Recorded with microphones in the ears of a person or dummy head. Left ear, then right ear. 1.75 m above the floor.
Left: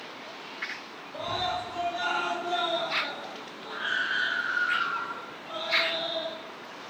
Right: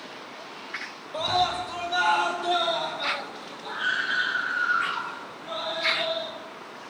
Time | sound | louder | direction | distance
1.1 | a scream | right 6 dB | 60° right (ahead or behind) | 2 m